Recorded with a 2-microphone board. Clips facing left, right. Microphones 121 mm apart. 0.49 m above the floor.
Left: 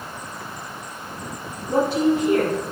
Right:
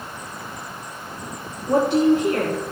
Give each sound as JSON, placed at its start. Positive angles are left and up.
{"t": 1.7, "sound": "a woman speaking", "side_deg": -75, "distance_m": 5.5}